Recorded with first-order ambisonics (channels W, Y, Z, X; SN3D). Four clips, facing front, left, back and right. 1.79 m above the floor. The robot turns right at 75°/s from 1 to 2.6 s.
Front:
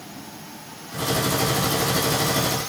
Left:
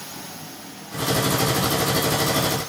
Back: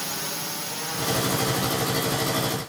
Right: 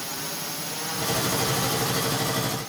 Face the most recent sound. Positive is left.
turn(degrees=10)